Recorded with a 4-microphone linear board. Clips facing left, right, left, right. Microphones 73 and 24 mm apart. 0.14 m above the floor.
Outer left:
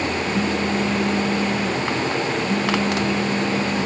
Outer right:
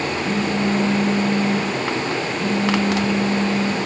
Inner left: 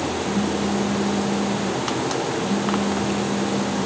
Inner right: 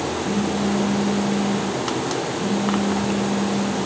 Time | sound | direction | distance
0.2 | a phone buzzing | 60° right (ahead or behind) | 7.5 m